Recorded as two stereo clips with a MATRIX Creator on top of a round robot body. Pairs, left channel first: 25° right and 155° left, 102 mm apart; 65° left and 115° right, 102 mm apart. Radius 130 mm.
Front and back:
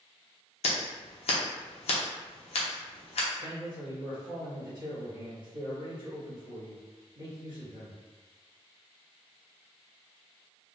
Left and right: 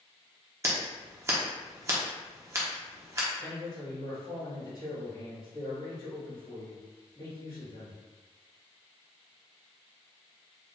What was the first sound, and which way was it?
Scissors, 50° right.